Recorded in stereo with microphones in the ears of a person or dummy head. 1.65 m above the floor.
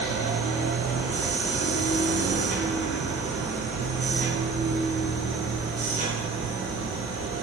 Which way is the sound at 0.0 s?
35° right (ahead or behind).